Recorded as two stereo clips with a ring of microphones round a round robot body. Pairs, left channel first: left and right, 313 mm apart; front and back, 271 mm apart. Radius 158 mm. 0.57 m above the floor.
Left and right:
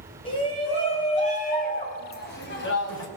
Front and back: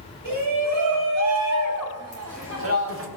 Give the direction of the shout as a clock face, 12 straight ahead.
7 o'clock.